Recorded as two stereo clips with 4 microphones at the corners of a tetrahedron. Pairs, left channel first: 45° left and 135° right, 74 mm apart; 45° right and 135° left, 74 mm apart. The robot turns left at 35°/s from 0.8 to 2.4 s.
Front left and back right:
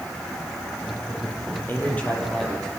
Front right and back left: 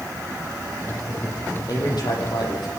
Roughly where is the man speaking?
Ahead.